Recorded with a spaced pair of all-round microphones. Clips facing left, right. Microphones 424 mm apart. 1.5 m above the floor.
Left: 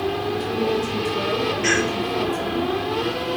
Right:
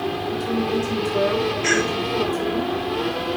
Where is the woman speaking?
45° left (ahead or behind), 5.5 m.